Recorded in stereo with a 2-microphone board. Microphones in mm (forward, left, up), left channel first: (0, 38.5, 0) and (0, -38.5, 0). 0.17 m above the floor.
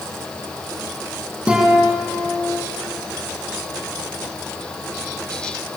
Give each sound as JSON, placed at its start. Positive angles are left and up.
{"t": 1.5, "sound": "a guitar", "side_deg": -10, "distance_m": 7.0}